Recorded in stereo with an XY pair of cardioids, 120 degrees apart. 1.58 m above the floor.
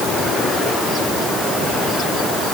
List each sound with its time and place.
Only background noise.